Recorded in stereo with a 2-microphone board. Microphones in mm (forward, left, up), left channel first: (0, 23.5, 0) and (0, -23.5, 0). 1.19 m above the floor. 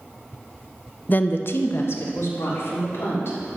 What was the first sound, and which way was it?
A woman speaking, 35° left (ahead or behind).